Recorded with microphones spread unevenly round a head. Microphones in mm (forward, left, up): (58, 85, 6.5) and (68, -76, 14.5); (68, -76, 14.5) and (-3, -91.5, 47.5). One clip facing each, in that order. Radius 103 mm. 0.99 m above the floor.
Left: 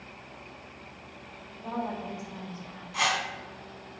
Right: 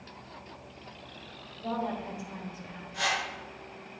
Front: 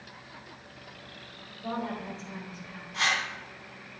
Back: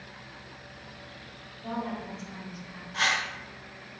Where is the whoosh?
120° left, 2.5 m.